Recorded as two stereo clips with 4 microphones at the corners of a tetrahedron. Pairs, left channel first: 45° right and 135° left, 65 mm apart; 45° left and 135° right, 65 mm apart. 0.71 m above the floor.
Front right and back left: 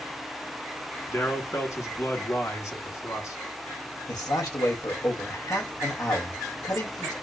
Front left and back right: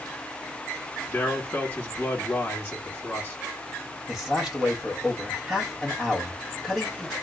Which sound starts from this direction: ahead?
A man speaking, at 1.1 s.